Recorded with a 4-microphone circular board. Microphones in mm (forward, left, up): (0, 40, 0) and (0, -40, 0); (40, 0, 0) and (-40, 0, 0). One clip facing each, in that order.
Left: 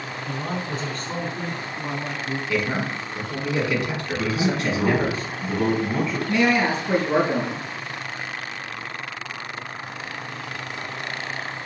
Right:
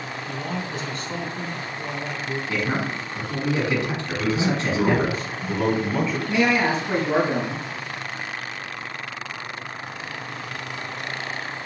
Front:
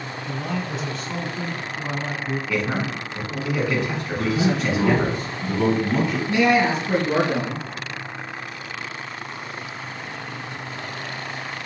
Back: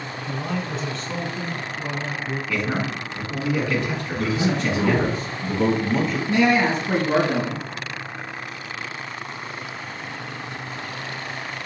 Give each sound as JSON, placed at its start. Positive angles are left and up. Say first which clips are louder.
{"t": 0.3, "sound": "a man speaking", "louder": "left 2 dB, even", "azimuth_deg": 100, "distance_m": 1.5}
{"t": 2.5, "sound": "a man speaking", "louder": "left 1 dB, even", "azimuth_deg": -80, "distance_m": 1.5}
{"t": 4.2, "sound": "a man speaking", "louder": "right 1 dB, front 1 dB", "azimuth_deg": -5, "distance_m": 2.5}
{"t": 6.3, "sound": "a man speaking", "louder": "left 1 dB, even", "azimuth_deg": -170, "distance_m": 1.5}